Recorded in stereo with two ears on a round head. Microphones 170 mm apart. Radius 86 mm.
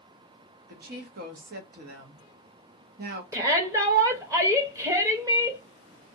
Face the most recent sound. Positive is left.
turn(degrees=-15)  # may be behind; listen again after turning